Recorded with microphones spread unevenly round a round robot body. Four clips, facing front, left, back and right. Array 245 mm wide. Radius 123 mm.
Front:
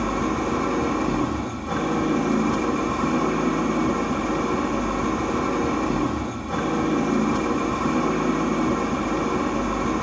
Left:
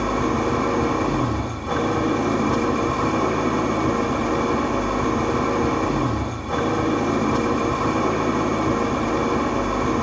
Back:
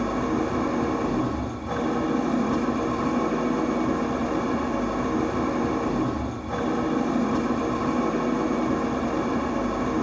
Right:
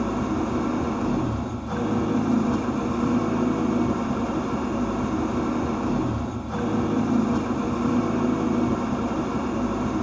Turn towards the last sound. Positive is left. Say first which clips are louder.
# left 4 dB, front 1 dB
turn(degrees=75)